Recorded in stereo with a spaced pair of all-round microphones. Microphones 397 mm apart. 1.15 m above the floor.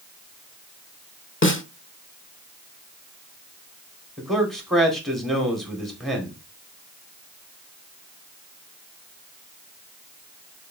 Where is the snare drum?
30° left (ahead or behind), 0.9 m.